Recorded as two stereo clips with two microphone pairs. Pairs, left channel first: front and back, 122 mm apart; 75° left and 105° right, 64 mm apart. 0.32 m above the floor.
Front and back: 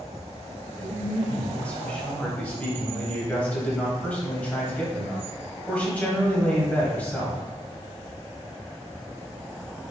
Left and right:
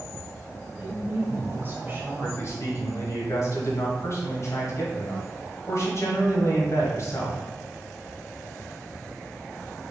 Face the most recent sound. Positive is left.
turn(degrees=75)